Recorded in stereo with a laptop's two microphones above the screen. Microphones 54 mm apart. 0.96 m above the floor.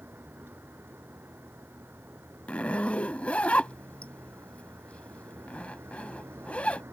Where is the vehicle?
40° right (ahead or behind); by 6.9 s 45° right (ahead or behind).